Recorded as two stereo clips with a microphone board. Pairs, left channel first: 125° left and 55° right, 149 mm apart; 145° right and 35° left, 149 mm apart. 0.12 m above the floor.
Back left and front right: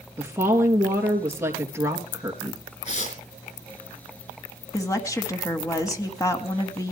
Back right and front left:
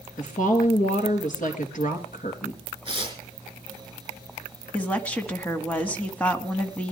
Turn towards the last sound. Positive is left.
turn(degrees=150)